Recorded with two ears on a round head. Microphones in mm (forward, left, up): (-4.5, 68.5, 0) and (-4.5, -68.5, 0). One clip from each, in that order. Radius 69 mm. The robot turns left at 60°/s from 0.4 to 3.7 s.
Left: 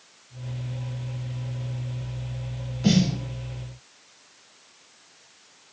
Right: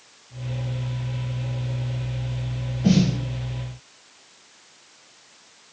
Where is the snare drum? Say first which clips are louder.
Right 1 dB; 65° left (ahead or behind), 5.5 m; by 3.2 s 80° left, 5.5 m.